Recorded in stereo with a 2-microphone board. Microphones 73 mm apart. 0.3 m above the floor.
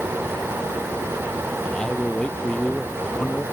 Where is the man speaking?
15° left (ahead or behind).